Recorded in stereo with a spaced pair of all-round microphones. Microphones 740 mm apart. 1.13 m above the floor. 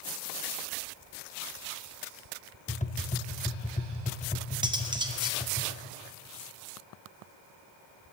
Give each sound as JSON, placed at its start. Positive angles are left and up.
{"t": 2.7, "sound": "tapping", "side_deg": 10, "distance_m": 0.7}
{"t": 4.6, "sound": "cutlery clinking", "side_deg": -5, "distance_m": 0.9}